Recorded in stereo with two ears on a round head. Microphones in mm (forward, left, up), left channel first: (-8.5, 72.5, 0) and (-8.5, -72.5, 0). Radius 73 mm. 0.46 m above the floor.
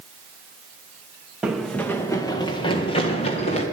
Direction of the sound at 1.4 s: 5° right (ahead or behind).